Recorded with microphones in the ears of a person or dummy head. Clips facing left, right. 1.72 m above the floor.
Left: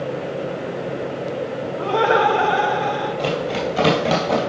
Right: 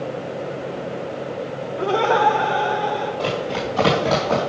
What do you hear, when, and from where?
1.8 s laughter: 30° right (ahead or behind), 0.5 m; by 3.1 s 70° left (ahead or behind), 1.8 m
3.2 s running footsteps: 15° left (ahead or behind), 2.5 m; by 4.4 s 35° left (ahead or behind), 3 m